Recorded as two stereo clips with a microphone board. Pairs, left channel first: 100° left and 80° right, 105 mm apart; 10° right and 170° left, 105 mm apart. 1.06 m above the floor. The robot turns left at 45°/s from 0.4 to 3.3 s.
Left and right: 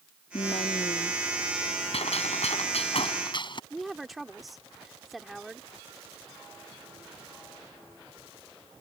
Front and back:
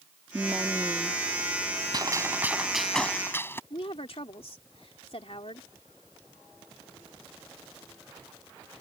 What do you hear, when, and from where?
0.3 s a woman speaking: 105° left; by 1.2 s 70° left
1.9 s a gunshot: 120° left; by 3.6 s 60° left
3.7 s a woman speaking: 10° left